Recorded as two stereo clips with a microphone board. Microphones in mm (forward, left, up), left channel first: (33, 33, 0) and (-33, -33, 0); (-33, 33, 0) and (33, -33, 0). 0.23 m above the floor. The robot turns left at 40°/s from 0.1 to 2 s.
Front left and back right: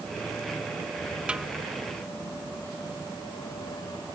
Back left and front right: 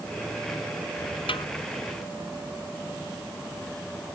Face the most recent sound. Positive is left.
turn(degrees=115)